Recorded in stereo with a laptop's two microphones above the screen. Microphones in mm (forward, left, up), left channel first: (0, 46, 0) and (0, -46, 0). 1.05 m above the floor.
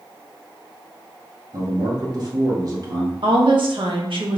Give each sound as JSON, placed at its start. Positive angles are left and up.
{"t": 1.5, "sound": "a man speaking", "side_deg": -45, "distance_m": 1.0}
{"t": 3.2, "sound": "a woman speaking", "side_deg": -65, "distance_m": 0.8}